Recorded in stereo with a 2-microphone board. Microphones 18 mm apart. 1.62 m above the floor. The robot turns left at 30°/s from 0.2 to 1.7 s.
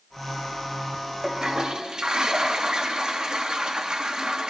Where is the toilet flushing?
35° right (ahead or behind), 0.9 m; by 4.5 s 50° right (ahead or behind), 0.9 m.